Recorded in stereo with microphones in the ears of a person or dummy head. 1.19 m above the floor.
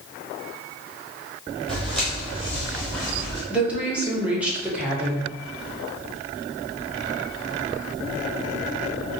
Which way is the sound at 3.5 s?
5° right (ahead or behind).